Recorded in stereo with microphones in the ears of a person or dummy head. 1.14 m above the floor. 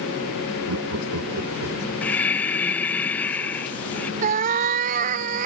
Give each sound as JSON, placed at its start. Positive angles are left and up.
{"t": 0.7, "sound": "laughter", "side_deg": -75}
{"t": 2.0, "sound": "breathing", "side_deg": 10}
{"t": 4.2, "sound": "a cat meowing", "side_deg": -45}